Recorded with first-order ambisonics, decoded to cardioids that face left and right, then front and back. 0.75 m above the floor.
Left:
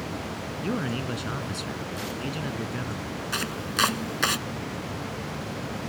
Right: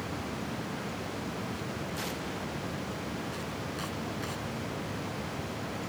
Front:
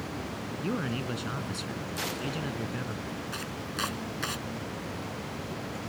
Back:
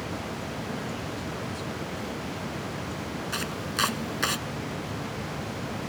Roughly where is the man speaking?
Ahead left.